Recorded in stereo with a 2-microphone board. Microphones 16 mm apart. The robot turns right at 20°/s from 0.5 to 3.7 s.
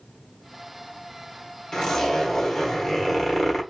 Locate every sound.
1.7 s a zipper: 125° left, 1.2 m; by 3.6 s 160° left, 1.2 m